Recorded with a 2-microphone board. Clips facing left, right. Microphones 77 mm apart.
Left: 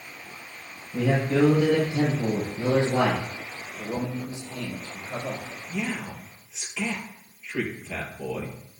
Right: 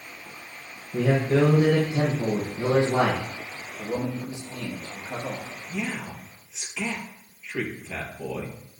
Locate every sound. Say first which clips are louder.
0.9 s a man speaking: right 1 dB; 35° right (ahead or behind), 5 m
3.8 s a man speaking: right 1 dB; 25° right (ahead or behind), 5 m
5.7 s a man speaking: left 1 dB; 5° right (ahead or behind), 4 m